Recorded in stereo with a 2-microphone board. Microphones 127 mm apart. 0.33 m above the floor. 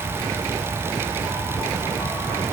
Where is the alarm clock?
No alarm clock in this recording.